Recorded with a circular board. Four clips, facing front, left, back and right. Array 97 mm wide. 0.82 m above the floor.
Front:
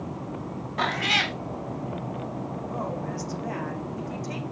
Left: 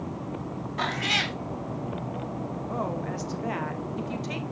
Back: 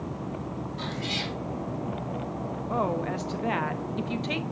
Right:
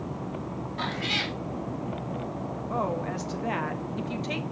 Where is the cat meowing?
20° left, 0.6 m.